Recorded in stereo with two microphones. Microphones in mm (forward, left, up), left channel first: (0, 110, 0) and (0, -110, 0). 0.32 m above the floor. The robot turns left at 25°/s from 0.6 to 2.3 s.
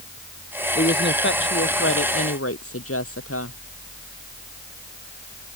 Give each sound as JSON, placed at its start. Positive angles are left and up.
{"t": 0.8, "sound": "a woman speaking", "azimuth_deg": 135}